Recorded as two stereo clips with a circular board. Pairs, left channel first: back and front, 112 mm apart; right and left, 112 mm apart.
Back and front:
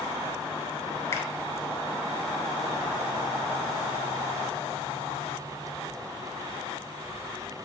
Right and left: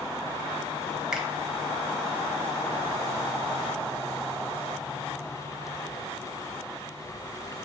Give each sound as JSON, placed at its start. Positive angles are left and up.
{"t": 1.1, "sound": "a finger snap", "azimuth_deg": 165, "distance_m": 0.8}